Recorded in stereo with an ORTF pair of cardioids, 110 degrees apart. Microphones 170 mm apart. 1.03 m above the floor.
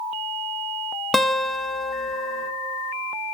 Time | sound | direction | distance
1.1 | a guitar | straight ahead | 0.8 m